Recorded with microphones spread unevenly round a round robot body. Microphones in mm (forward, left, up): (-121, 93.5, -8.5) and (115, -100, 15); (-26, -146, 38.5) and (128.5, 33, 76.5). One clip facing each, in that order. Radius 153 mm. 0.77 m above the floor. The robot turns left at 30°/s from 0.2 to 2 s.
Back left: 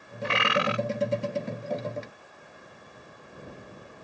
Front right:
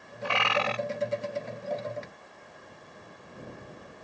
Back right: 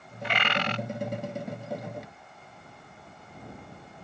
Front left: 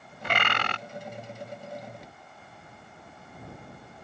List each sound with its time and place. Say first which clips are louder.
0.2 s a bird: back left 3 dB, back right 2 dB; 90° left; by 0.8 s 70° left